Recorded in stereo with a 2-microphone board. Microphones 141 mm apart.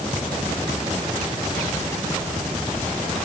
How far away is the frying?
I don't hear frying.